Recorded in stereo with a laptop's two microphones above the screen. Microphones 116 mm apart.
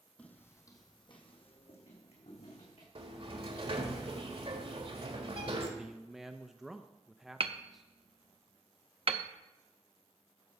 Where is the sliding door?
55° right (ahead or behind), 1.6 m.